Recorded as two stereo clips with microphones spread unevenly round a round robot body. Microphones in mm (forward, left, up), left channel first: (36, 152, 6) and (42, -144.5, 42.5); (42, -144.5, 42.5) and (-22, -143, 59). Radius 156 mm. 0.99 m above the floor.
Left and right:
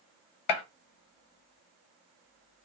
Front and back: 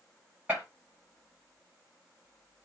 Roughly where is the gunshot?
Left.